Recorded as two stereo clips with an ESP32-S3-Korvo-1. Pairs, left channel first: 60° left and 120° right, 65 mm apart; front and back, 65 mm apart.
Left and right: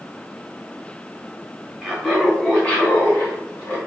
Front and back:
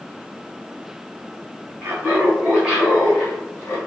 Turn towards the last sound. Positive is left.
turn(degrees=40)